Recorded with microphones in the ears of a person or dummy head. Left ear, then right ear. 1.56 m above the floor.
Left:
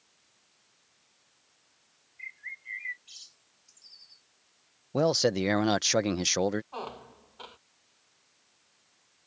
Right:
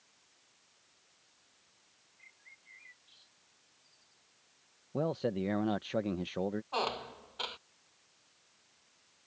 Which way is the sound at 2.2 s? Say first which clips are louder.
Left 17 dB; 60° left (ahead or behind).